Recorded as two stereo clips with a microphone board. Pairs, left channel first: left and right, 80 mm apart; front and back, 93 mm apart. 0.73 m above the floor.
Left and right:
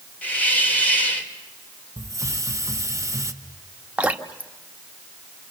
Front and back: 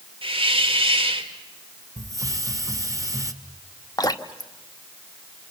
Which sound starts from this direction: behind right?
A hiss, at 2.0 s.